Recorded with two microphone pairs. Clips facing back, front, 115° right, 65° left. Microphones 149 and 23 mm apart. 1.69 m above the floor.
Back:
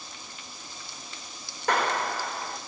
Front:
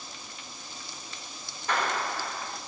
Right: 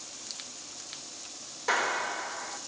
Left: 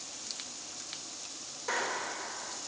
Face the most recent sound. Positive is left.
turn(degrees=180)